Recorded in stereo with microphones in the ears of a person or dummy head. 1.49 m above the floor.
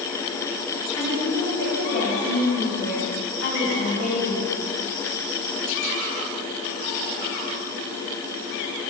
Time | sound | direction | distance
1.0 | a woman speaking | 60° left (ahead or behind) | 3.5 m